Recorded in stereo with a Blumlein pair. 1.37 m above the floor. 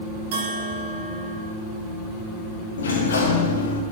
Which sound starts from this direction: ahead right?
A bell, at 0.3 s.